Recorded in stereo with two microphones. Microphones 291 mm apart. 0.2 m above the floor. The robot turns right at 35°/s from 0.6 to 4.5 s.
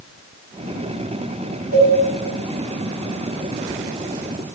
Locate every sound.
1.7 s a cowbell: 30° right (ahead or behind), 1.1 m; by 1.9 s 25° right (ahead or behind), 1.1 m